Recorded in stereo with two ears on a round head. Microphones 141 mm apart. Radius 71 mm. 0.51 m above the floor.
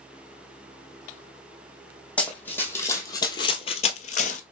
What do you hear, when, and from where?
2.2 s running footsteps: 5° left (ahead or behind), 1.3 m; by 4.4 s 50° left (ahead or behind), 0.7 m